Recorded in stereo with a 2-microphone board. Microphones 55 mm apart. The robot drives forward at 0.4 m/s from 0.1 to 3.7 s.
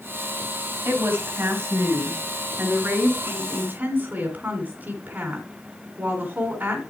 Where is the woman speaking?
50° right (ahead or behind), 1.9 m; by 6.8 s 35° right (ahead or behind), 2.5 m.